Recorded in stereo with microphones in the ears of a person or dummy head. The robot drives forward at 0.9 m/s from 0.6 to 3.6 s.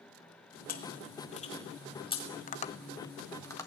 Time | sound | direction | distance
0.7 | chewing | 45° left (ahead or behind) | 1.5 m
2.5 | tapping | 40° left (ahead or behind) | 0.6 m